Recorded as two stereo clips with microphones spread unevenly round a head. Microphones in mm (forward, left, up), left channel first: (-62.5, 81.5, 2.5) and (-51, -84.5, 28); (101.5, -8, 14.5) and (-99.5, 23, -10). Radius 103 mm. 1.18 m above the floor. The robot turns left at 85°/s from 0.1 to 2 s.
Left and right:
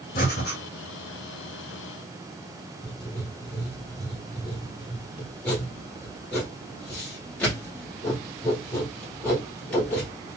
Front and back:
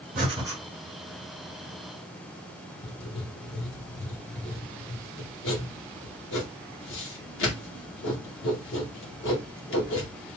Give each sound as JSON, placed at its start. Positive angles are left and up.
{"t": 0.1, "sound": "breathing", "azimuth_deg": 125, "distance_m": 1.3}
{"t": 2.8, "sound": "writing", "azimuth_deg": 15, "distance_m": 1.0}